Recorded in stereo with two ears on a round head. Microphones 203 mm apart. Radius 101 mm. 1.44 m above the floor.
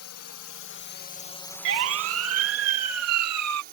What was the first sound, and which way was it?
A drone, 75° left (ahead or behind).